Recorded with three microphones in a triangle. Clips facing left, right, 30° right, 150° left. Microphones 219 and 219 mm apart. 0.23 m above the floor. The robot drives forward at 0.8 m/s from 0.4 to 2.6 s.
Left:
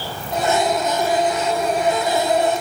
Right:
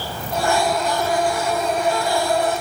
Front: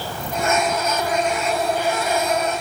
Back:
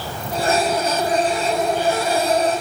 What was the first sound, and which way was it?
Only background noise.